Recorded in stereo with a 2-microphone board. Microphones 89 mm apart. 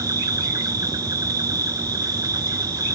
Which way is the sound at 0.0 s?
40° right (ahead or behind).